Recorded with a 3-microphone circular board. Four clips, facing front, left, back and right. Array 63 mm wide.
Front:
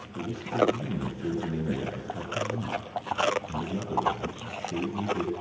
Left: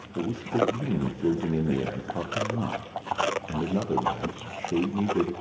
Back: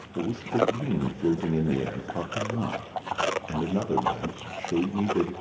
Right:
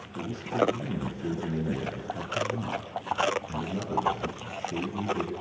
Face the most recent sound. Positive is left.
turn(degrees=140)